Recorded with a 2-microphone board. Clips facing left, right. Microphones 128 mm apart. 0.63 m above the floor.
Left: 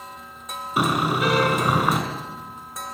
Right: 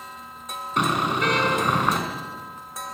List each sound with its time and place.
0.8 s a car horn: 5° left (ahead or behind), 4 m